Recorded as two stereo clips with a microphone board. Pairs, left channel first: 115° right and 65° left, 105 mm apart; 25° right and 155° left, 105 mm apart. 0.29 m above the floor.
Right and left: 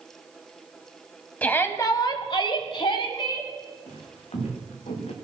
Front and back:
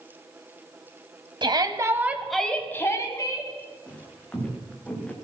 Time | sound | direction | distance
1.4 | a shout | 175° left | 1.4 m
3.9 | footsteps | 100° right | 4.5 m